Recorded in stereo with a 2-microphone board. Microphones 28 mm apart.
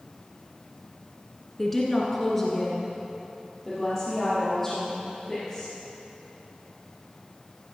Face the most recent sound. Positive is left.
turn(degrees=10)  # may be behind; listen again after turning